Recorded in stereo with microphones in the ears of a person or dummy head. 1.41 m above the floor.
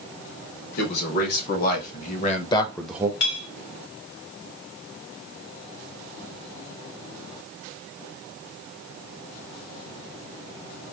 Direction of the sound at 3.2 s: 70° left (ahead or behind).